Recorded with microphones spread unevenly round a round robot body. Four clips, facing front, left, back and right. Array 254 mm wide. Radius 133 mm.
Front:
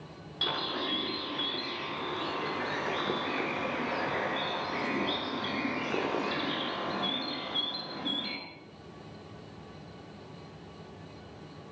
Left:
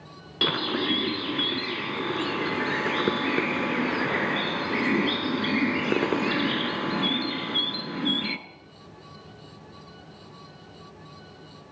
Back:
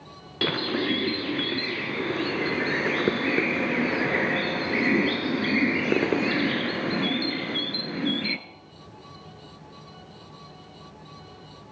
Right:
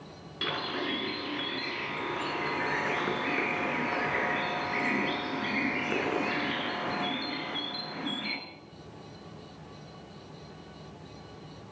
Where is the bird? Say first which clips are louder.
Left 6 dB, back 8 dB; 145° left, 2.0 m.